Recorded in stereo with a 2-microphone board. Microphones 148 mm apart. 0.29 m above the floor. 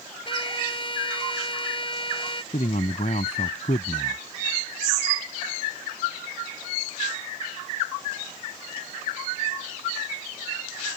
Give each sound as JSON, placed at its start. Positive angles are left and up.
{"t": 0.2, "sound": "a trumpet", "side_deg": 35}
{"t": 2.5, "sound": "a man speaking", "side_deg": 60}